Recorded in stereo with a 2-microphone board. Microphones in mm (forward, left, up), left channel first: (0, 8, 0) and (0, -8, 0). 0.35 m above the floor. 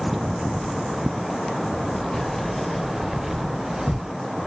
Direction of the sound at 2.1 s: 25° left (ahead or behind).